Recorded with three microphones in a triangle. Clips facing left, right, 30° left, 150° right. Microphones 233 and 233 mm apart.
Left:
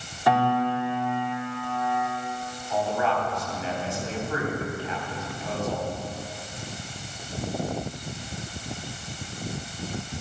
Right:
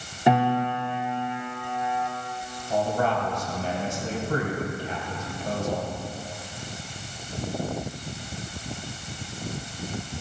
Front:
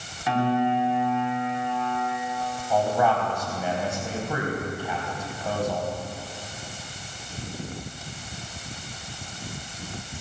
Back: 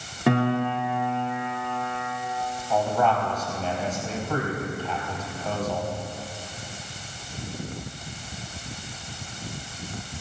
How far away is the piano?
About 2.5 m.